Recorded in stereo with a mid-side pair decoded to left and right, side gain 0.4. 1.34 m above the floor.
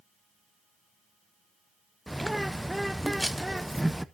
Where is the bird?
5° right, 0.6 m.